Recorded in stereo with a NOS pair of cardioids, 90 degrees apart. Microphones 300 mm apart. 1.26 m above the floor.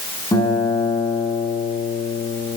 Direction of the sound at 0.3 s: 15° left.